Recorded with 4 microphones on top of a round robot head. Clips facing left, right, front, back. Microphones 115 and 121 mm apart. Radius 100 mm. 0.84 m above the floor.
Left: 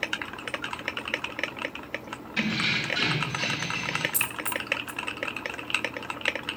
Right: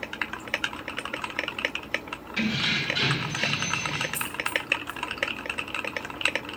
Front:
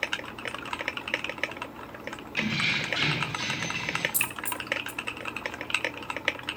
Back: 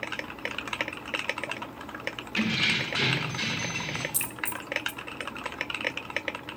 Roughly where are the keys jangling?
Behind.